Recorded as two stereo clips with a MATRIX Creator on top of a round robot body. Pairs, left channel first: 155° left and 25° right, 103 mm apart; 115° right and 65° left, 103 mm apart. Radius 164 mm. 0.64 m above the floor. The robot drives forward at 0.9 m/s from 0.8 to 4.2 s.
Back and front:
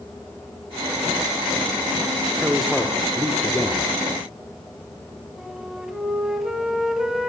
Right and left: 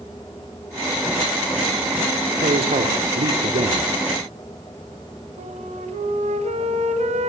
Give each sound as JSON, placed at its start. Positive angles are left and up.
{"t": 2.4, "sound": "a man speaking", "azimuth_deg": 60, "distance_m": 3.0}
{"t": 5.4, "sound": "a flute", "azimuth_deg": 65, "distance_m": 2.5}